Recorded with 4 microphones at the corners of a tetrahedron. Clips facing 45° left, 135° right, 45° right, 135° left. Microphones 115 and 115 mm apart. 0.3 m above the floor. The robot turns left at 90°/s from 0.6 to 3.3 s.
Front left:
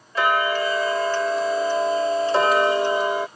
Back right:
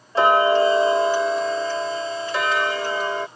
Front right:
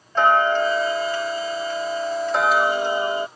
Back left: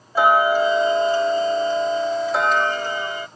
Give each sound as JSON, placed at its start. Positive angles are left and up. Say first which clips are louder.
{"t": 0.1, "sound": "ticking", "louder": "back right 5 dB, back left 1 dB", "azimuth_deg": -155}